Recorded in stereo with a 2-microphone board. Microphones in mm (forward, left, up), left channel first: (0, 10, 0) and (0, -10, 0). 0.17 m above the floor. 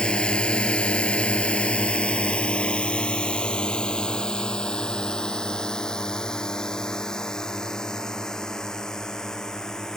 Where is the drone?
50° left (ahead or behind); by 10.0 s 30° left (ahead or behind).